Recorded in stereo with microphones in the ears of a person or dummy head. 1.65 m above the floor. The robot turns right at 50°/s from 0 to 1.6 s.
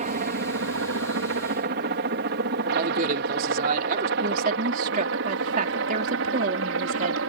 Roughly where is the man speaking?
Right.